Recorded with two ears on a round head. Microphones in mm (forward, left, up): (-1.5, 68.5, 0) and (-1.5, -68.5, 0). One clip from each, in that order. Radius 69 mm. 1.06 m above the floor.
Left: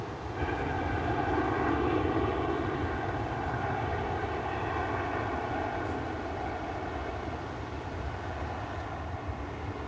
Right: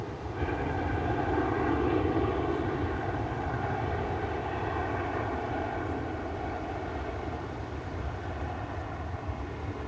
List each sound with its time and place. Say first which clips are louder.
0.0 s an aircraft: even; 20° left (ahead or behind); by 9.9 s 15° left (ahead or behind)